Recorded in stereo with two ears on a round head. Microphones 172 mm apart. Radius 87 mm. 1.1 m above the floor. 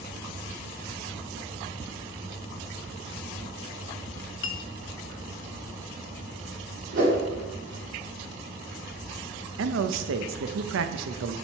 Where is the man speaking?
75° right (ahead or behind), 0.7 m.